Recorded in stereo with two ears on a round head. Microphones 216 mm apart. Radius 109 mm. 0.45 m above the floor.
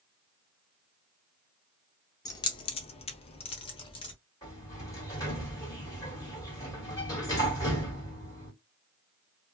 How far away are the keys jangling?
About 0.6 m.